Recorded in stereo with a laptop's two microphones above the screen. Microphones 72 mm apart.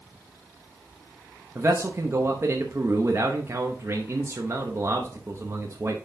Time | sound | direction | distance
1.6 | a man speaking | 40° right (ahead or behind) | 0.7 m